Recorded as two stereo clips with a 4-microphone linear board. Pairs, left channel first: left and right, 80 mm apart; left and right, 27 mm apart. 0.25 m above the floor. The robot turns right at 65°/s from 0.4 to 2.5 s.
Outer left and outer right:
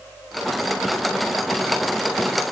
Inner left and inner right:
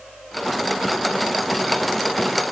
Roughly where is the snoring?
No snoring in this recording.